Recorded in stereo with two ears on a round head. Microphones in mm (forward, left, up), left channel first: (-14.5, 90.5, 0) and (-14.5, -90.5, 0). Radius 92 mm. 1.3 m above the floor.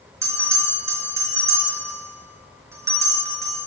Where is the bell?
15° right (ahead or behind), 1.6 m.